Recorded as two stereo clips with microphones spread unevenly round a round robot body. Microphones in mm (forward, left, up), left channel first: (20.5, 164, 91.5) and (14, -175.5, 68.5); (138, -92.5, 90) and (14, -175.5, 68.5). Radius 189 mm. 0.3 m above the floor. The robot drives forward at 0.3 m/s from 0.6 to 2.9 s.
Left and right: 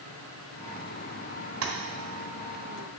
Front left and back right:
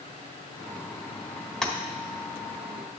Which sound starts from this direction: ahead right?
Tapping, at 1.6 s.